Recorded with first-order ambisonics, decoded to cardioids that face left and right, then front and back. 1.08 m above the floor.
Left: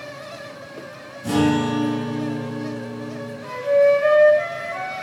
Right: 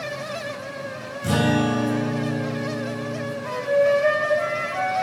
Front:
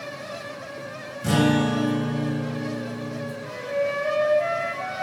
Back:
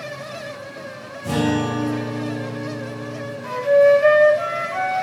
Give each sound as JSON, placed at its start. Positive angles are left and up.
{"t": 1.2, "sound": "a guitar", "azimuth_deg": -35, "distance_m": 3.5}
{"t": 3.4, "sound": "a flute", "azimuth_deg": 175, "distance_m": 1.2}